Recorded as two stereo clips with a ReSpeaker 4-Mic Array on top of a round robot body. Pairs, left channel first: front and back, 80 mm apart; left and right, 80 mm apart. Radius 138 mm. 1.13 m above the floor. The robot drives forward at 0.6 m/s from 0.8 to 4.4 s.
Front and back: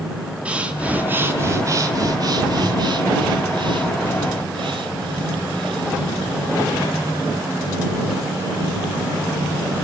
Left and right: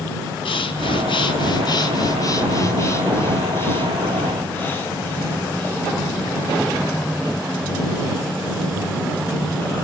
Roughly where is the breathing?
Left.